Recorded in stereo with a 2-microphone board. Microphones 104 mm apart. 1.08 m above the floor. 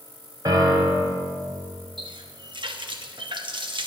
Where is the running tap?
50° right (ahead or behind), 1.1 m.